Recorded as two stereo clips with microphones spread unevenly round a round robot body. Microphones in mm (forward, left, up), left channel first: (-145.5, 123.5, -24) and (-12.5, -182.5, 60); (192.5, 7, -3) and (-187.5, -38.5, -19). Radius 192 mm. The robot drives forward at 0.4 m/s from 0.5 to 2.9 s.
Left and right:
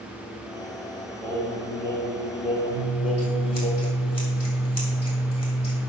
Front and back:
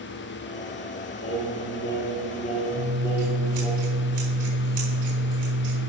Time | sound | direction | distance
1.2 | singing | 45° left | 1.5 m
2.7 | scissors | 155° left | 4 m